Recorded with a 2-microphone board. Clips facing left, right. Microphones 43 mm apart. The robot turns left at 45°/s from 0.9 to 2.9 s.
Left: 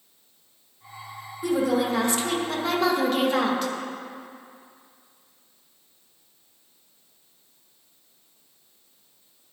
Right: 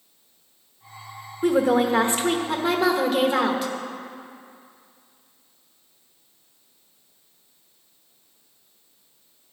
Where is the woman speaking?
100° right, 1.2 m; by 3.7 s 170° right, 1.2 m.